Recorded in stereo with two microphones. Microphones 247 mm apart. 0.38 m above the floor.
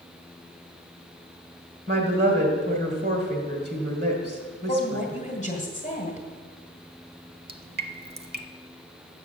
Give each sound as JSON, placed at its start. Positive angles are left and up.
{"t": 1.9, "sound": "a woman speaking", "side_deg": -45, "distance_m": 2.0}
{"t": 4.7, "sound": "a woman speaking", "side_deg": 30, "distance_m": 1.8}
{"t": 7.5, "sound": "dripping", "side_deg": -40, "distance_m": 0.6}